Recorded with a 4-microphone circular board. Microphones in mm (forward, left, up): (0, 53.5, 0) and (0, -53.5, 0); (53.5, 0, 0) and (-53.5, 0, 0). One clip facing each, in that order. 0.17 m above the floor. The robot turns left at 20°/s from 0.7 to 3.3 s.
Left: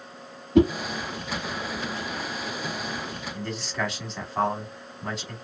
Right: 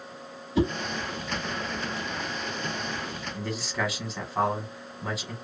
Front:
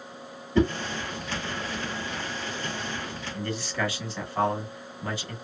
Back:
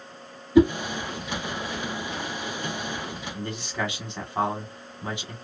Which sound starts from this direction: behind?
A man speaking, at 3.3 s.